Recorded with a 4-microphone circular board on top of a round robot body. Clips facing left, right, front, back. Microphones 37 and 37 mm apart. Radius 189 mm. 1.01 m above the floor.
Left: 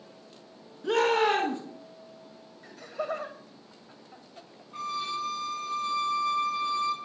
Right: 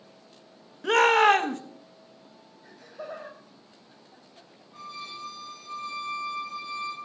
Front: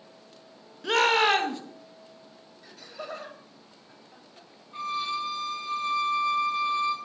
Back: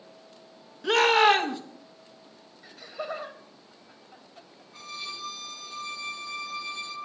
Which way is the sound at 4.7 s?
60° left.